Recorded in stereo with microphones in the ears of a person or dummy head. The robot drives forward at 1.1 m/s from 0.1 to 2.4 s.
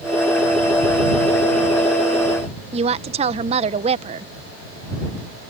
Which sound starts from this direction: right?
A woman speaking, at 2.7 s.